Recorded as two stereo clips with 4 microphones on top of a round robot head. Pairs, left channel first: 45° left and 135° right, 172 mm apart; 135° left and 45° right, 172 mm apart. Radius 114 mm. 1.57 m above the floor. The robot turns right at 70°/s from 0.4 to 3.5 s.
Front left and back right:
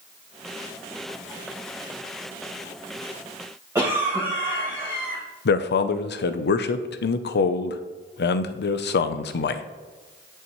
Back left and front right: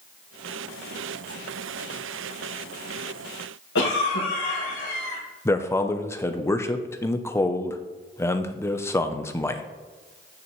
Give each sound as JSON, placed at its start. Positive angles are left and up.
{"t": 3.8, "sound": "a cough", "azimuth_deg": 150, "distance_m": 1.9}
{"t": 5.5, "sound": "a man speaking", "azimuth_deg": 60, "distance_m": 0.7}